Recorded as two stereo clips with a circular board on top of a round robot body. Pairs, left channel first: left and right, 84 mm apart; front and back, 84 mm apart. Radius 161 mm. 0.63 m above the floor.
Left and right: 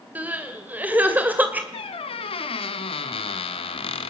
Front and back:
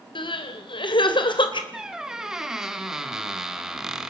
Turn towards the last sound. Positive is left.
turn(degrees=95)